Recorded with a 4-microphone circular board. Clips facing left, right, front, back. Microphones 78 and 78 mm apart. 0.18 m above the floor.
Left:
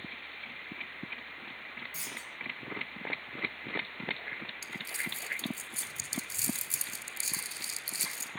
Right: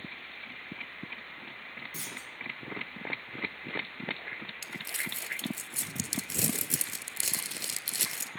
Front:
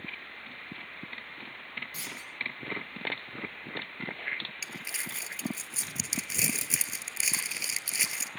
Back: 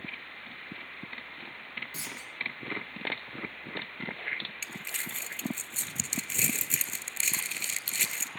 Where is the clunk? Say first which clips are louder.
Right 1 dB, even; 120° right, 6.5 m.